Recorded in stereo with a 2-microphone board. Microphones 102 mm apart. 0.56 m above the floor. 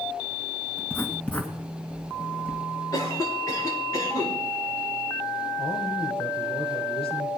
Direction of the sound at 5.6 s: 65° left (ahead or behind).